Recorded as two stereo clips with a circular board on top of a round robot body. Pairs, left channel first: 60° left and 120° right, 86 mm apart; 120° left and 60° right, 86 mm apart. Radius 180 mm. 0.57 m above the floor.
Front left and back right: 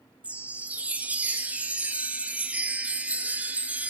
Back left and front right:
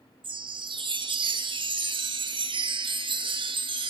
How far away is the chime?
About 1.3 m.